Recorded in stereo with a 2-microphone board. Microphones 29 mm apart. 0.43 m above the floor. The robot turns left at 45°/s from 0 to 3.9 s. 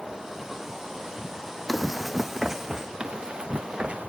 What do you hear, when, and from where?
1.7 s running footsteps: 5° left (ahead or behind), 1.0 m; by 2.9 s 20° right (ahead or behind), 1.5 m
3.0 s running footsteps: 30° right (ahead or behind), 1.7 m; by 4.1 s 35° right (ahead or behind), 1.6 m